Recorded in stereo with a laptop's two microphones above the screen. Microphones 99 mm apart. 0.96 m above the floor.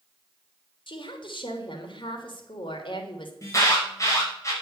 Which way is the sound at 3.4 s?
35° left (ahead or behind).